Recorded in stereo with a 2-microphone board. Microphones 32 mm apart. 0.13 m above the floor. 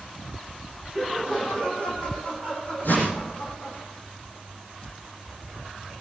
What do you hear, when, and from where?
0.9 s laughter: 25° left (ahead or behind), 4.5 m; by 3.8 s 50° left (ahead or behind), 6 m
2.8 s a whoosh: 70° left (ahead or behind), 5.5 m